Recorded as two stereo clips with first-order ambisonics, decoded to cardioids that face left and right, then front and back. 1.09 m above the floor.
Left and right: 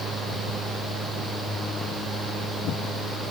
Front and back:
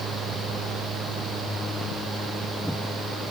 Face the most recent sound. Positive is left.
No sound to turn to.